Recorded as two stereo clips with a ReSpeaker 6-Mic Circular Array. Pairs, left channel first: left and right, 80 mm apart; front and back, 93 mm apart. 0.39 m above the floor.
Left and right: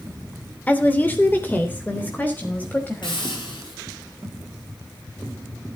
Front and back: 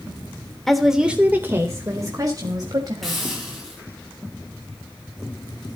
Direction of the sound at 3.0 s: 85° left.